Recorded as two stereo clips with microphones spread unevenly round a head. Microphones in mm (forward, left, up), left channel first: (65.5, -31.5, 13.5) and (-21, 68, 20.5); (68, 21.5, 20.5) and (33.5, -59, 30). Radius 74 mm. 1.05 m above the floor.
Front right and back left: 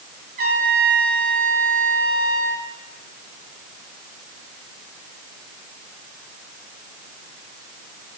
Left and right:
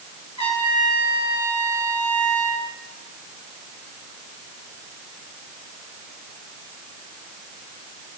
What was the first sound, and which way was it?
A trumpet, 120° left.